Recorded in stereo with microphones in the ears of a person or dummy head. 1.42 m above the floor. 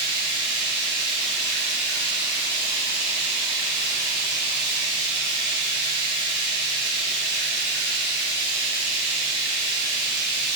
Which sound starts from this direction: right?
Running water, at 0.0 s.